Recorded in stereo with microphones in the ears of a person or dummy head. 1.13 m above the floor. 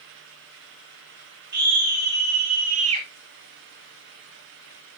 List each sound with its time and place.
1.5 s a scream: 50° right (ahead or behind), 2 m; by 3.1 s 25° right (ahead or behind), 0.8 m